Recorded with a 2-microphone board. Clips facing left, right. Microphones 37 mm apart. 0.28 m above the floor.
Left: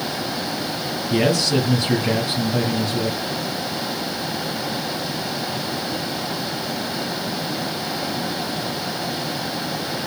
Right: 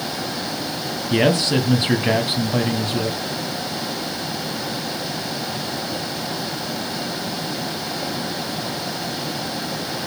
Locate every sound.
1.1 s a man speaking: 35° right (ahead or behind), 1.6 m